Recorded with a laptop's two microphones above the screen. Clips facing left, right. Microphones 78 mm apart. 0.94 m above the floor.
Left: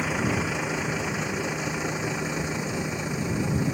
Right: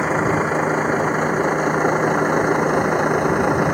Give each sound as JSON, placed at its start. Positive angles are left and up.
{"t": 0.0, "sound": "a vehicle", "side_deg": -40}